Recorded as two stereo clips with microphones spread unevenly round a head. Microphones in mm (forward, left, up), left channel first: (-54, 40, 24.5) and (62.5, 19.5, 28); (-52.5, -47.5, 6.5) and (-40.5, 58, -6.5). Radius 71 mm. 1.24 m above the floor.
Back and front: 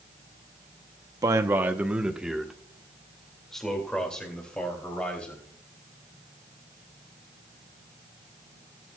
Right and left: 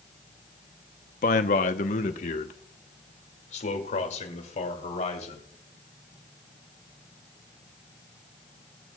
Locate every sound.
1.2 s a man speaking: 75° right, 0.7 m; by 5.5 s 110° right, 3.5 m